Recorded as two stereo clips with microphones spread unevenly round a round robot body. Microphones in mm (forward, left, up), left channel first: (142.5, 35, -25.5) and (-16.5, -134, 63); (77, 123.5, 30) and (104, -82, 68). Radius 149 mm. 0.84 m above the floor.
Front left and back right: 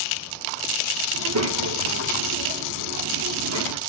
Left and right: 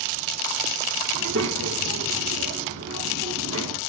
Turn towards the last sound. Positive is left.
turn(degrees=-120)